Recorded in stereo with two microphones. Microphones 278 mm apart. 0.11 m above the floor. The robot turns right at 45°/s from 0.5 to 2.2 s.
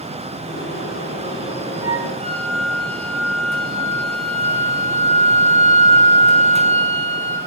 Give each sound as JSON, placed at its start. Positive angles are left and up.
{"t": 1.8, "sound": "a flute", "side_deg": -5, "distance_m": 0.9}